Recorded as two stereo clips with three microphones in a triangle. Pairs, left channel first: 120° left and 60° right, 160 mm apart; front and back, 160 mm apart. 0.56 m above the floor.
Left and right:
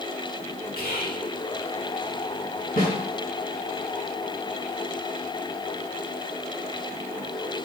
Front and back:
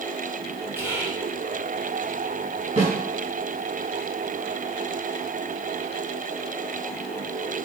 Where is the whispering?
105° left, 3.5 m.